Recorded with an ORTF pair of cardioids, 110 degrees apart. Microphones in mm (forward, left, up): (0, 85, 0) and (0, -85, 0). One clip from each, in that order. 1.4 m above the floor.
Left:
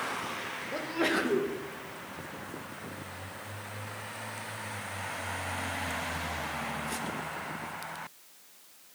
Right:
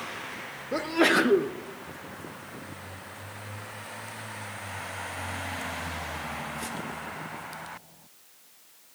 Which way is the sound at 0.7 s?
40° right.